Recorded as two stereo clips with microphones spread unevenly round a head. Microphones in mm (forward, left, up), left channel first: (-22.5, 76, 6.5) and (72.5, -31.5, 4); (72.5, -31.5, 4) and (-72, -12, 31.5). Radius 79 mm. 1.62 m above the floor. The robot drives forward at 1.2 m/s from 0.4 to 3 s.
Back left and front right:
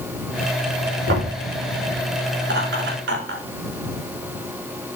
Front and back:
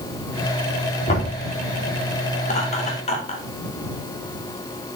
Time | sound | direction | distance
1.1 | knocking | 50° right | 4.5 m
2.4 | laughter | 50° right | 4.5 m